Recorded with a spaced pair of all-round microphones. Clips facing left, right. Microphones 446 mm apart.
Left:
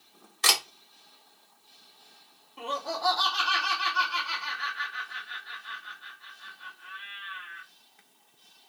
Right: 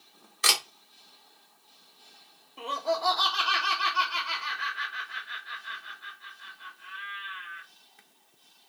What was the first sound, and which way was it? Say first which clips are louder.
A camera shutter: left 1 dB; 10° left (ahead or behind).